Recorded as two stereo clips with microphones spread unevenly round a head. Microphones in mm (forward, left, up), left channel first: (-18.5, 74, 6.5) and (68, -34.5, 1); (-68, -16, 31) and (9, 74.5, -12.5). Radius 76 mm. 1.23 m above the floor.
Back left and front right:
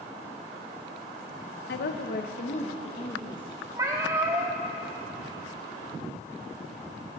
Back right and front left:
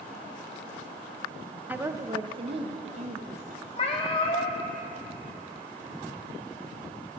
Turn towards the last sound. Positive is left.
turn(degrees=-120)